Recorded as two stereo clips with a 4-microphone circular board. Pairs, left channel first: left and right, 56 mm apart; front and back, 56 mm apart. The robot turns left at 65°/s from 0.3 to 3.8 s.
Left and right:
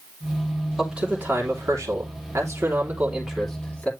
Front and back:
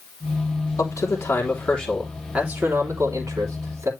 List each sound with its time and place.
0.8 s a man speaking: 5° right, 3 m; by 3.9 s 160° left, 3 m